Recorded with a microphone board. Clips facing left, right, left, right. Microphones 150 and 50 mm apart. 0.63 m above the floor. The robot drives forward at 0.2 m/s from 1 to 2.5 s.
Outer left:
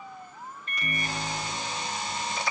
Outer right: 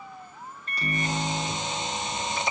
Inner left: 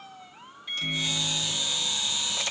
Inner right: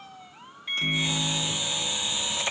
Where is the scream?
I don't hear a scream.